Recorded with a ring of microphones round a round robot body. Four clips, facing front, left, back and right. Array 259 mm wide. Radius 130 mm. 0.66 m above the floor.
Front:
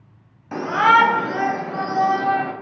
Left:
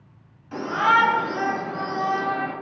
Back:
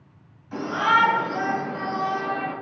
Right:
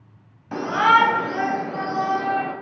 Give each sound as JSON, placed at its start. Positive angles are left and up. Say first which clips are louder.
{"t": 0.5, "sound": "a shout", "louder": "right 3 dB, front 6 dB", "azimuth_deg": -35, "distance_m": 1.6}